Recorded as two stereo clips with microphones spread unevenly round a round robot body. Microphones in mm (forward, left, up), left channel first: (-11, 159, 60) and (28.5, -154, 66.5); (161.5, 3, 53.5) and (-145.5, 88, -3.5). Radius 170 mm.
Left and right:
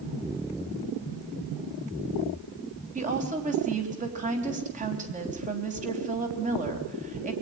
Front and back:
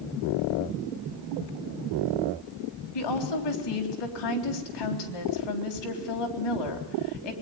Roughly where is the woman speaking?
Ahead.